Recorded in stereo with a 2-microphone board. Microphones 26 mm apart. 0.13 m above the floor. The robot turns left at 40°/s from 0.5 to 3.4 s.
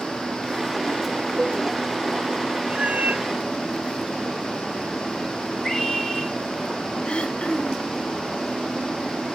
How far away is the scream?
About 4.5 m.